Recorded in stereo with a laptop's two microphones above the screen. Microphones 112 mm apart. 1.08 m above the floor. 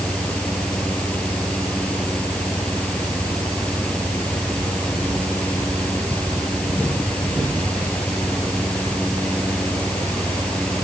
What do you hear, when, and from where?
0.0 s a fan: 10° left (ahead or behind)